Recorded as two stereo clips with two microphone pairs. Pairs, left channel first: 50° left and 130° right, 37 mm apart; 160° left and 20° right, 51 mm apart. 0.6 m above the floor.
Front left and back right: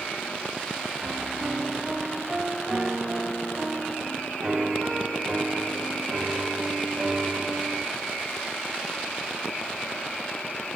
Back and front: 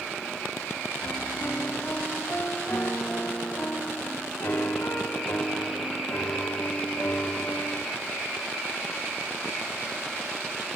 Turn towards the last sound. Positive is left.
turn(degrees=180)